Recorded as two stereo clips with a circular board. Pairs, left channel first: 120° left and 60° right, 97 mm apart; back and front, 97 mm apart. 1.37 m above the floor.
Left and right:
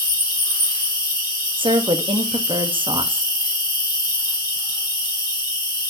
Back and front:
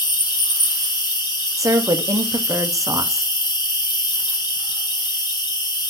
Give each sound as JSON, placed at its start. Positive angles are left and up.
{"t": 0.0, "sound": "an insect", "azimuth_deg": 150, "distance_m": 2.0}
{"t": 1.6, "sound": "a woman speaking", "azimuth_deg": -50, "distance_m": 0.9}